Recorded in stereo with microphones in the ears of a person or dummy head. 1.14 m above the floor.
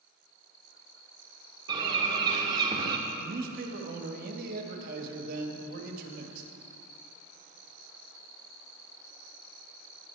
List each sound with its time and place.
1.7 s a bird: 25° right (ahead or behind), 1.4 m
3.2 s a man speaking: 55° right (ahead or behind), 1.5 m